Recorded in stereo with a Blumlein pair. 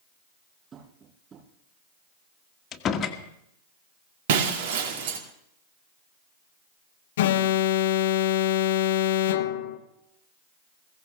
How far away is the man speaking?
I don't hear a man speaking.